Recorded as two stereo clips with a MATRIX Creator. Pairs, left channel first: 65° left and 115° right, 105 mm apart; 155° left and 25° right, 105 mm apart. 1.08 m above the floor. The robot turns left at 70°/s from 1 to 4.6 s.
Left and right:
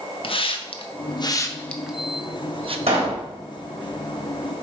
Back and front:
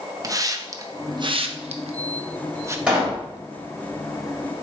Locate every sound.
0.2 s a hiss: 35° left, 0.7 m; by 2.8 s 90° right, 0.7 m
2.9 s a pop: 100° right, 3.5 m; by 3.2 s 130° right, 3.5 m